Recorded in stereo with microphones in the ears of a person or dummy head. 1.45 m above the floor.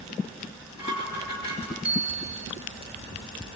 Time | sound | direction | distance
0.4 | dishes clattering | 60° left (ahead or behind) | 5.5 m
1.8 | a bicycle bell | 5° right (ahead or behind) | 2 m